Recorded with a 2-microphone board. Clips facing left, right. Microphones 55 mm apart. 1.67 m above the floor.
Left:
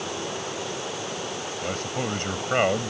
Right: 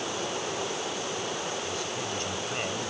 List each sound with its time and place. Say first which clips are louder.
1.6 s a man speaking: left 4 dB; 50° left (ahead or behind)